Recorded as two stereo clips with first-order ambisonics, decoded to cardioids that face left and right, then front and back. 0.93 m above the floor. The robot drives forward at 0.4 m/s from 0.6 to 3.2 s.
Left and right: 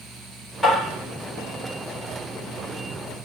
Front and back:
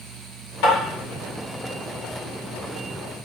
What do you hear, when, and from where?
0.6 s tapping: 10° left, 1.8 m